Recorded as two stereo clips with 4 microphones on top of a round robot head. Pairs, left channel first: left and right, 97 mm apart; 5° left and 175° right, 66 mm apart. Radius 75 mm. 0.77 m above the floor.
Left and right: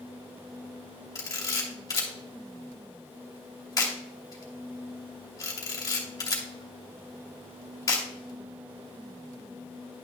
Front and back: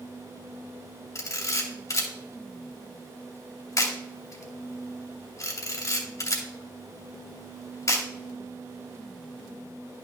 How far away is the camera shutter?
About 2.5 m.